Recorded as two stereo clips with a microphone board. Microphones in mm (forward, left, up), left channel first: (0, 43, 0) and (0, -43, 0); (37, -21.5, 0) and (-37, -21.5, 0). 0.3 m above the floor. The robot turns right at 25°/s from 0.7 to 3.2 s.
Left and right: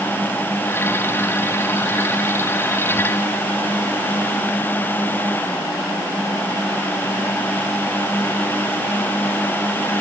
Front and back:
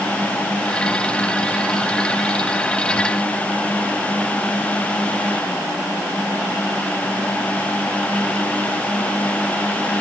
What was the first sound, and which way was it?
Only background noise.